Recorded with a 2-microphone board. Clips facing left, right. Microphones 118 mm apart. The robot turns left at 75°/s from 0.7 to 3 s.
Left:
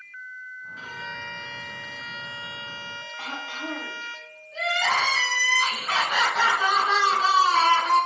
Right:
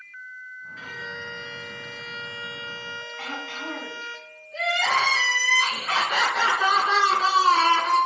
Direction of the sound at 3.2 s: 10° left (ahead or behind).